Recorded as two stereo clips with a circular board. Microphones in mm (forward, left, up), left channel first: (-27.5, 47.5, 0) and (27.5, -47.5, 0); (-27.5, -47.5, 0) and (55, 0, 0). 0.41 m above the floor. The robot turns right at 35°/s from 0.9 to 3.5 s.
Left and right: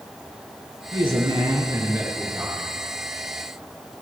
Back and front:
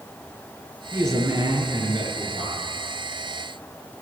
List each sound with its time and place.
0.9 s a man speaking: 30° right, 6.5 m; by 2.7 s 35° left, 6.5 m